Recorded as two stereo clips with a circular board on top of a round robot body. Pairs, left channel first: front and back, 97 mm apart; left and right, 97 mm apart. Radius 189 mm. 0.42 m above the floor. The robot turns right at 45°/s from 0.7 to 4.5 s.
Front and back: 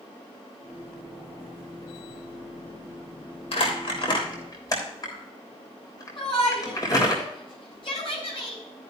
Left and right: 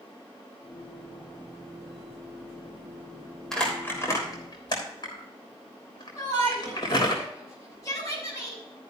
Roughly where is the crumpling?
Ahead.